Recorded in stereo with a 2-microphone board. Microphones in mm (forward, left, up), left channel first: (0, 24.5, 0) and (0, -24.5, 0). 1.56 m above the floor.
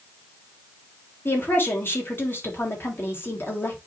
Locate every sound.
1.2 s a woman speaking: 50° left (ahead or behind), 3.5 m